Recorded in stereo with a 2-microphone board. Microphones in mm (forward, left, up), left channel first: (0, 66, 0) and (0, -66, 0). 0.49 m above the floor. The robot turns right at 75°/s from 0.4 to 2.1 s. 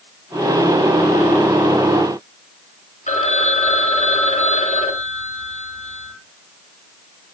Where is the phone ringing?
65° left (ahead or behind), 2.0 m.